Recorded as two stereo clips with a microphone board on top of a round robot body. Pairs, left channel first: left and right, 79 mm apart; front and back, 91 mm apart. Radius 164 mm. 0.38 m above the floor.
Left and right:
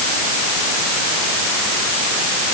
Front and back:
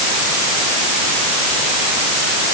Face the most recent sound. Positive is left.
No sound to turn to.